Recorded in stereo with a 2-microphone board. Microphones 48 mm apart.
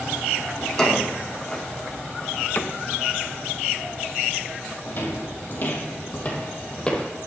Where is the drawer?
15° left (ahead or behind), 2.5 m.